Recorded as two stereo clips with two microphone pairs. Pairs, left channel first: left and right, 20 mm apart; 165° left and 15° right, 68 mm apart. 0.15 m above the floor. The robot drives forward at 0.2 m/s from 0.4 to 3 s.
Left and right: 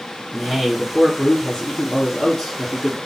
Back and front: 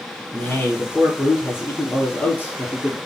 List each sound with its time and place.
0.3 s a man speaking: 115° left, 1.9 m; by 3.0 s 130° left, 2 m